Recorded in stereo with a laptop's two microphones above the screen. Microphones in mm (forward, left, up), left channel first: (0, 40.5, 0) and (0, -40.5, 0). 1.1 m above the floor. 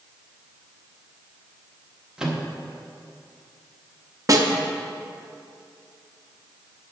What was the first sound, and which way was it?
A microwave, 10° right (ahead or behind).